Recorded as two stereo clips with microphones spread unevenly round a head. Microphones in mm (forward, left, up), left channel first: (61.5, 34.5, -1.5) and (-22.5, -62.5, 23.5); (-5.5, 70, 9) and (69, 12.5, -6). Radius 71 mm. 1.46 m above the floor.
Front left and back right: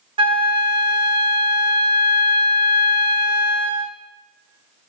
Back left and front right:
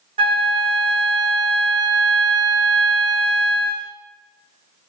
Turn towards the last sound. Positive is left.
turn(degrees=-75)